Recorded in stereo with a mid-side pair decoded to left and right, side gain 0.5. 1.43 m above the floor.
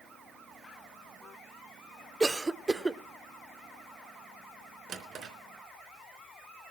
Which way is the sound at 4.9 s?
60° right.